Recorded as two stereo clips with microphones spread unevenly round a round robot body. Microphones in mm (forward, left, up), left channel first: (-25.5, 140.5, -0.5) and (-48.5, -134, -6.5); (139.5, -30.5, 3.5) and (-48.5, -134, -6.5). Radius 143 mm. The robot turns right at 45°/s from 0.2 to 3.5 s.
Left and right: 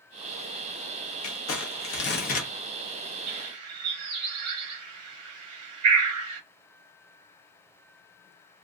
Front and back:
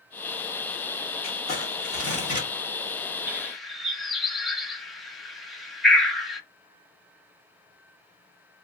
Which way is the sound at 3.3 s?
70° right.